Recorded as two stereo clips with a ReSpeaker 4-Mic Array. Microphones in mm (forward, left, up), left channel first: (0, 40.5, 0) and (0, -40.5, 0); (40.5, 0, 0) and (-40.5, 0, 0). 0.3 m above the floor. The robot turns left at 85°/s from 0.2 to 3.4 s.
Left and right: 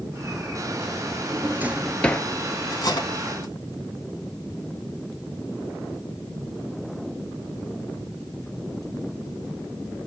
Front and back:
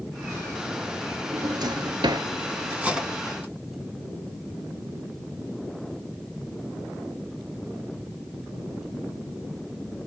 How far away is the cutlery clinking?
About 1.6 m.